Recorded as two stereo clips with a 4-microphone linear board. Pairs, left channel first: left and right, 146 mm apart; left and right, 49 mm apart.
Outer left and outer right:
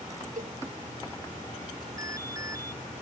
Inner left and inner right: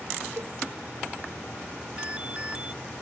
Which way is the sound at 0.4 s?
65° right (ahead or behind).